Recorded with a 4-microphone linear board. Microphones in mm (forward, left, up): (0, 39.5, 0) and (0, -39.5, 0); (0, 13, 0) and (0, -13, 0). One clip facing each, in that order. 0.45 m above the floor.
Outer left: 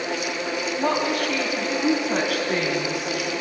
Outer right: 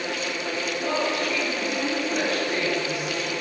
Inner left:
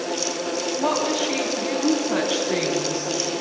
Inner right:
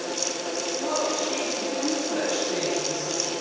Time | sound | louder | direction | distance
0.8 | a woman speaking | outer left 3 dB, inner left 4 dB | 70° left (ahead or behind) | 3 m